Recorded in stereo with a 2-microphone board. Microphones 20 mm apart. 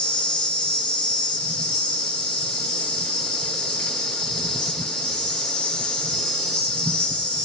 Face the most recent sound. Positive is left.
turn(degrees=75)  # may be behind; listen again after turning